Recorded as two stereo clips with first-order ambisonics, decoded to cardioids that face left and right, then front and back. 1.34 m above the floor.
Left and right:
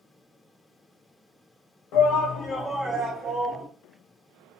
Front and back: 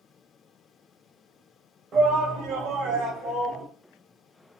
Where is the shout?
120° left, 0.8 m; by 3.7 s 135° right, 0.9 m.